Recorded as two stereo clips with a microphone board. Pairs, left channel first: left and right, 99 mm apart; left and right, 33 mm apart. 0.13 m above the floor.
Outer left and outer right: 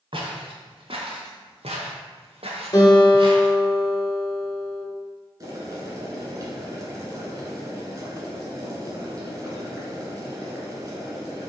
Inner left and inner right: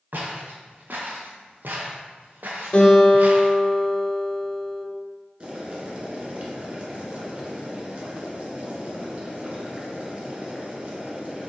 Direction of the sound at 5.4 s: 35° right (ahead or behind).